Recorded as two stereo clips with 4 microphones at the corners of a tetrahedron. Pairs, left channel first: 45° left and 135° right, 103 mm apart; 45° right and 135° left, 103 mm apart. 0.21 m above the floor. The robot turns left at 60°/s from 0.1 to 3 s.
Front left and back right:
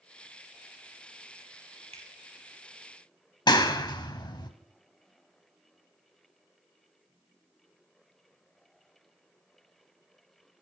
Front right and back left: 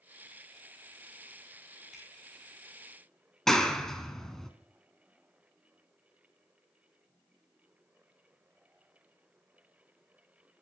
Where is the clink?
I don't hear a clink.